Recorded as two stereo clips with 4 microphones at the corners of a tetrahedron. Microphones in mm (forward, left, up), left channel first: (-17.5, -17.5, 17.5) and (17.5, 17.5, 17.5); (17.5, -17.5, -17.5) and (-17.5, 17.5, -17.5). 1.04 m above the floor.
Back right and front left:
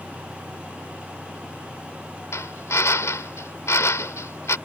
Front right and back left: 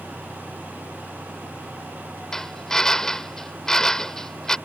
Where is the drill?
125° right.